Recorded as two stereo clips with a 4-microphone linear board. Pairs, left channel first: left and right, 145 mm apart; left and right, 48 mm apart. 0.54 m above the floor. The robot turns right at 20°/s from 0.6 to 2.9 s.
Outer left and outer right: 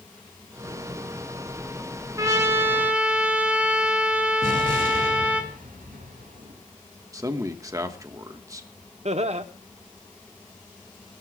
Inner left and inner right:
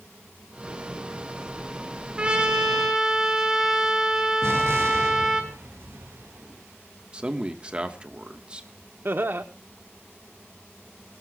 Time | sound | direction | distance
2.2 | a trumpet | 25° right (ahead or behind) | 2 m
4.4 | an explosion | 75° right (ahead or behind) | 4 m
7.1 | a man speaking | 25° right (ahead or behind) | 1.1 m
9.1 | laughter | 50° right (ahead or behind) | 0.9 m